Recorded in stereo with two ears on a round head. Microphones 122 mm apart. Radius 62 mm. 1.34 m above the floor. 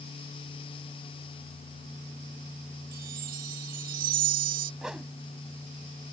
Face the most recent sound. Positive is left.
turn(degrees=-5)  # may be behind; listen again after turning